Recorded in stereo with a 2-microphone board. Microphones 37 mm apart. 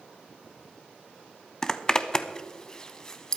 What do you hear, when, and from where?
1.6 s a zipper: 20° left (ahead or behind), 0.7 m